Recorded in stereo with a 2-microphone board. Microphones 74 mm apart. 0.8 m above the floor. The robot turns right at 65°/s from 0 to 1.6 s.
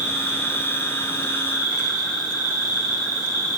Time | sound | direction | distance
0.0 | an insect | 20° right | 4 m